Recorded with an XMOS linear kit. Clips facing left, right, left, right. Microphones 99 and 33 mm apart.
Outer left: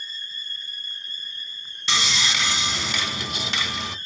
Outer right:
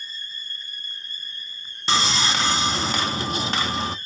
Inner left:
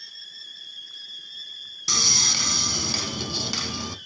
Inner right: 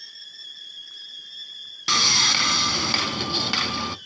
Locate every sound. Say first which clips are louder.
1.9 s sawing: outer right 4 dB, inner right 4 dB; 40° right (ahead or behind), 0.5 m